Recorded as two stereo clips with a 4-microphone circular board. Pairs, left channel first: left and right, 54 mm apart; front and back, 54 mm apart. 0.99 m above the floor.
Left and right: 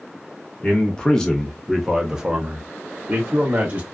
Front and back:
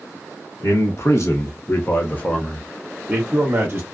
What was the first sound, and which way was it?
A man speaking, 20° left.